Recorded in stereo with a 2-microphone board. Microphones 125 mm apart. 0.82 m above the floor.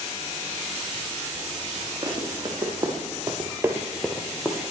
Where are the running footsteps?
30° right (ahead or behind), 2.5 m; by 4.6 s 15° left (ahead or behind), 1.3 m.